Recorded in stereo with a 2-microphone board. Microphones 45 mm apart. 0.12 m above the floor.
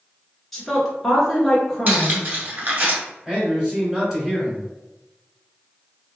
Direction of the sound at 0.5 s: 5° left (ahead or behind).